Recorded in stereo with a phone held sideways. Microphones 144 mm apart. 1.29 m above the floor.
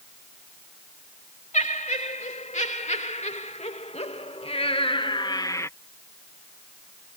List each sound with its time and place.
1.5 s laughter: 55° left (ahead or behind); by 5.7 s 20° left (ahead or behind)